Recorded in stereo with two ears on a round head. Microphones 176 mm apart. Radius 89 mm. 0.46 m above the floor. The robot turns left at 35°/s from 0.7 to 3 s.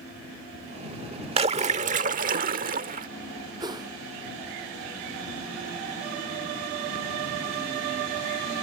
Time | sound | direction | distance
1.4 | a splash | 45° right | ?
3.6 | a whoosh | 20° right (ahead or behind) | ?